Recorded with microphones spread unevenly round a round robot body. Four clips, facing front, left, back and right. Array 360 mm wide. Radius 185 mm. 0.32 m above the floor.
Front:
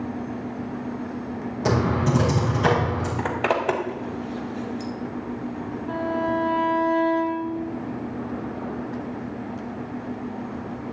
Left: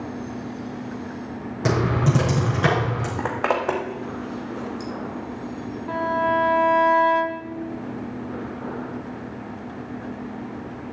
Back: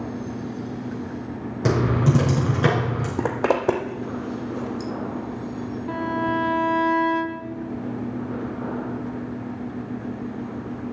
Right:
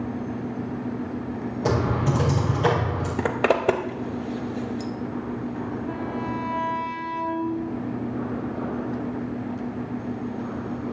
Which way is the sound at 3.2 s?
125° right.